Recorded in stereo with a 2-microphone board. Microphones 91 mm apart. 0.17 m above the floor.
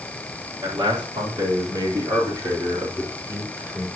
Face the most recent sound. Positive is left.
turn(degrees=-20)  # may be behind; listen again after turning